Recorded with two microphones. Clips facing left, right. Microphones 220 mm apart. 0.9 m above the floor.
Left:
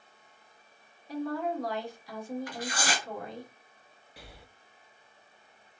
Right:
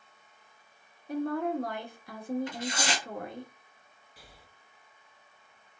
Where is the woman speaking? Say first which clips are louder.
Right 2 dB; 55° right (ahead or behind), 1.6 m.